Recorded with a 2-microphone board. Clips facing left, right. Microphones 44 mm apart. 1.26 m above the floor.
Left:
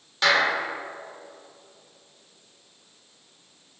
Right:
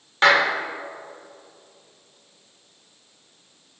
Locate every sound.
0.2 s a clap: 35° right (ahead or behind), 3 m